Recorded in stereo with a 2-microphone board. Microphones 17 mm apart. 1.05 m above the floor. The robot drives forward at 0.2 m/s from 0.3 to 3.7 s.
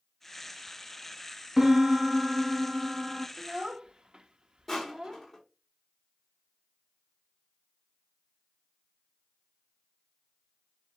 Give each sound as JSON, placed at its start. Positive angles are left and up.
{"t": 1.6, "sound": "a piano", "side_deg": -25, "distance_m": 1.4}
{"t": 3.4, "sound": "a child speaking", "side_deg": -55, "distance_m": 0.6}
{"t": 4.7, "sound": "crushing", "side_deg": 15, "distance_m": 4.0}